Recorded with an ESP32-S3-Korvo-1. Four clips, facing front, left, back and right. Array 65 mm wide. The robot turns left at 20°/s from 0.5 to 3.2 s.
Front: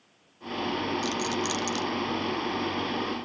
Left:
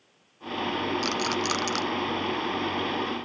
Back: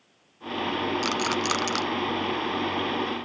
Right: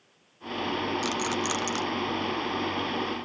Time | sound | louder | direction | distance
1.0 | a rattle | left 1 dB, back 3 dB | 170° left | 0.6 m